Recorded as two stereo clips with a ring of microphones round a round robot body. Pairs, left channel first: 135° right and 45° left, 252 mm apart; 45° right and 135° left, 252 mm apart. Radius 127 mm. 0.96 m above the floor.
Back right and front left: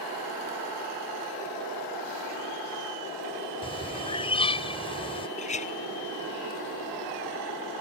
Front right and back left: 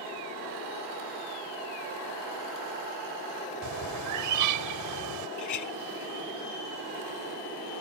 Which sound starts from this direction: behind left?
A bird, at 3.6 s.